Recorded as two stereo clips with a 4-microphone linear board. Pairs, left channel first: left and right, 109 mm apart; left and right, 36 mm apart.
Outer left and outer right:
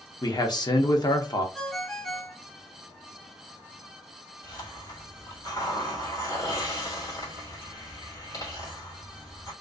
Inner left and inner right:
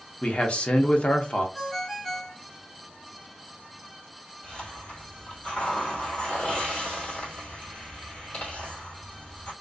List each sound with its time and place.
0.2 s a man speaking: 40° left (ahead or behind), 0.6 m
1.6 s a ringtone: 5° left (ahead or behind), 0.9 m
4.4 s a hiss: 35° left (ahead or behind), 1.8 m